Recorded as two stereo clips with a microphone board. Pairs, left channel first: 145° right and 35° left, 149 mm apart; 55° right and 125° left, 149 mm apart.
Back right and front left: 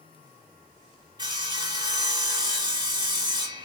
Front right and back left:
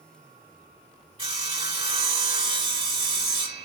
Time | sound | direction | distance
1.2 | sawing | 85° left | 1.8 m